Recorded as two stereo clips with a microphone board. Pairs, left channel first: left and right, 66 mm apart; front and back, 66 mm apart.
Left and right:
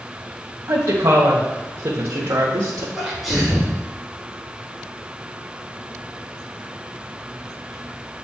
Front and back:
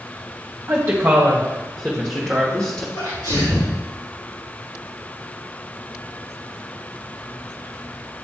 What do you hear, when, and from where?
0.7 s a woman speaking: 115° right, 1.0 m; by 2.9 s 70° right, 1.7 m
3.0 s a sneeze: straight ahead, 3 m